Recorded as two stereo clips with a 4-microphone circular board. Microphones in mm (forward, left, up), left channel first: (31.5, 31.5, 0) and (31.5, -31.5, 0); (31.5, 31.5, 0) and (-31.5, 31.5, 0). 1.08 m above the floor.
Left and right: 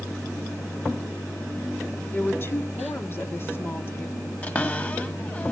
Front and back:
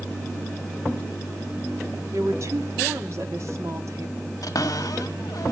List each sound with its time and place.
2.1 s a woman speaking: 140° left, 1.8 m
4.4 s a cupboard door: 25° left, 1.5 m